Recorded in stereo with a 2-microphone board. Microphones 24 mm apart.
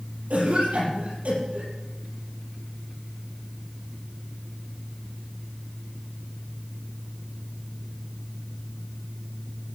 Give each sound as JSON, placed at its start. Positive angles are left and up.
{"t": 0.3, "sound": "a cough", "side_deg": -80, "distance_m": 6.0}